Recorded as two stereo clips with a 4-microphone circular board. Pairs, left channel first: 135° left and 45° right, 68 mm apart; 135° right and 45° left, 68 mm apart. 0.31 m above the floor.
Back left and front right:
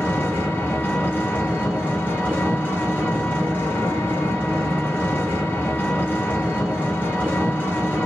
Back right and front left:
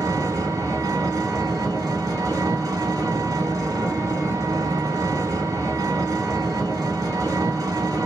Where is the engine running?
75° left, 1.2 m.